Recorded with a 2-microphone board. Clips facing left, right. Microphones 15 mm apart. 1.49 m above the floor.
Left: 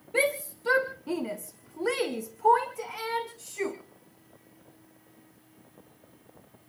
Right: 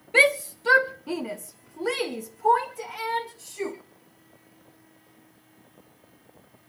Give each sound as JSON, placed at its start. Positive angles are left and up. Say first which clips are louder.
{"t": 0.1, "sound": "a shout", "louder": "right 8 dB", "side_deg": -50, "distance_m": 0.9}